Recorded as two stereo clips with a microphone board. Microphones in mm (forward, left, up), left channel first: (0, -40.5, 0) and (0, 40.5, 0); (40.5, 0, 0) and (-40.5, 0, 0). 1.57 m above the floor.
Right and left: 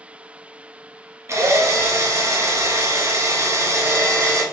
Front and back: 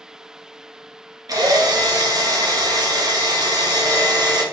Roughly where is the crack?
I don't hear a crack.